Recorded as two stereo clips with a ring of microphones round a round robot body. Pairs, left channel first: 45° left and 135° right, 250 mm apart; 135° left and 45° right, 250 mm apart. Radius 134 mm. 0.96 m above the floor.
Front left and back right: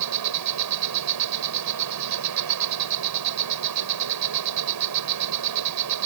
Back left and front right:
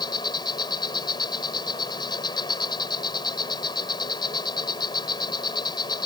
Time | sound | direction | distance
0.0 | an insect | 150° right | ?